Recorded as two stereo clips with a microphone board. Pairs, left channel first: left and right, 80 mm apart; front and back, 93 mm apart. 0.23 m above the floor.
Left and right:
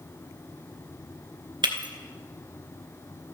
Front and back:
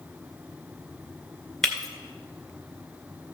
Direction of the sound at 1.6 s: 85° right.